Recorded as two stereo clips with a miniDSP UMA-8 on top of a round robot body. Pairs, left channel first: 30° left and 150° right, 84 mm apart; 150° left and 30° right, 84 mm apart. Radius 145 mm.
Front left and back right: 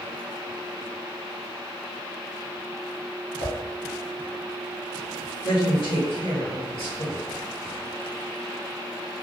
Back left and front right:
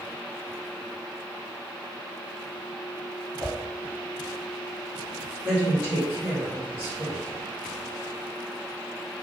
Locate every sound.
3.4 s a whoosh: 50° left, 1.7 m
5.4 s a woman speaking: 50° left, 1.9 m